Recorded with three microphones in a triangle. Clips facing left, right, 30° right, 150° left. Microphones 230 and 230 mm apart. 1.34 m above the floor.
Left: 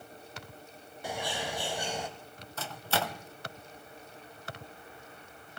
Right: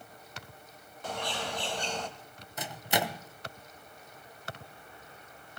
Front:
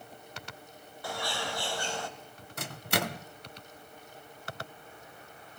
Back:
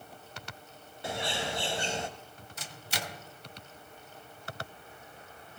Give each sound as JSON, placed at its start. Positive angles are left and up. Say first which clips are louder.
{"t": 1.0, "sound": "a bird", "louder": "even, back 2 dB", "azimuth_deg": 150, "distance_m": 1.1}
{"t": 2.6, "sound": "a microwave", "louder": "right 2 dB, front 9 dB", "azimuth_deg": -15, "distance_m": 0.6}